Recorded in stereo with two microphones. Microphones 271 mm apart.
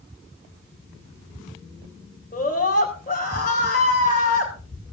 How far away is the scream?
About 4 m.